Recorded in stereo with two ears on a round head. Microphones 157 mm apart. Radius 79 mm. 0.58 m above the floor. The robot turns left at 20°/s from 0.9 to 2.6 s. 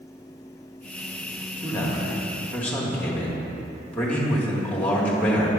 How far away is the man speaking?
About 1.1 m.